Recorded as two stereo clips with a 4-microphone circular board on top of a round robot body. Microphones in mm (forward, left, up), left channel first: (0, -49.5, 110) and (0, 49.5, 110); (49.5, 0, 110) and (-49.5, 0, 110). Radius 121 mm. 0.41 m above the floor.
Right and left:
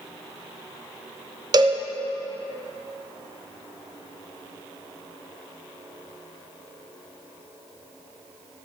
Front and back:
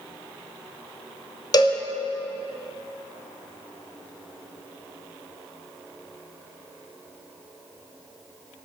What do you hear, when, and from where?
1.5 s a cowbell: 45° left, 0.7 m